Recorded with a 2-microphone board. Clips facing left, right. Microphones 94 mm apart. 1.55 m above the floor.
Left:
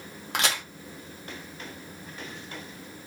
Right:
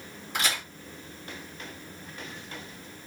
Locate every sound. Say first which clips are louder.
0.3 s a crack: left 2 dB; 75° left (ahead or behind), 1.0 m